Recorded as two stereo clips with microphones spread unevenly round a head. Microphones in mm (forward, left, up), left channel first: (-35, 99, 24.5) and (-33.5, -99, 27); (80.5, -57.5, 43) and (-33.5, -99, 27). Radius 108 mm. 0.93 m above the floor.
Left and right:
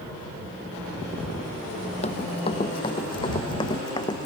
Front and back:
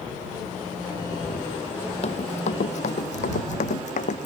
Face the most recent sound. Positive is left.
turn(degrees=20)